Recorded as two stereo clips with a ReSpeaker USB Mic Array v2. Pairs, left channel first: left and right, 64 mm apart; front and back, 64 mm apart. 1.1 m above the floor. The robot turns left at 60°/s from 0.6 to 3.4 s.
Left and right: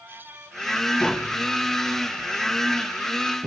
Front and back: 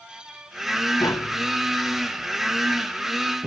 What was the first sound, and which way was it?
Tapping, 20° left.